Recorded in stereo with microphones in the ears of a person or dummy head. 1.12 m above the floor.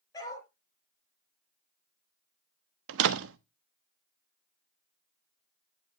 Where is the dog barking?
20° left (ahead or behind), 8.5 m.